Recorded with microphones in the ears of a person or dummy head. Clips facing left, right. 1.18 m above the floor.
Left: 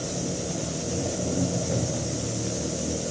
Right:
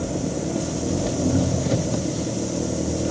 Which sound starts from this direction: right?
An engine running, at 0.0 s.